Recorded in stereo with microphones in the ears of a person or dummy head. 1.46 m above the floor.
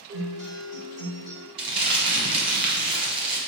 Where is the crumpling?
30° right (ahead or behind), 1.0 m.